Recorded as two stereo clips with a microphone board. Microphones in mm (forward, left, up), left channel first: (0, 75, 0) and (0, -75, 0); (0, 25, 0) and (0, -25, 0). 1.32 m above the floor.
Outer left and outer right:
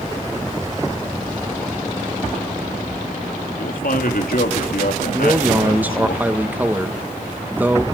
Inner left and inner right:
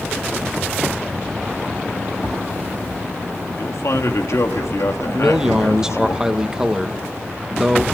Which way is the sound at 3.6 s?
80° left.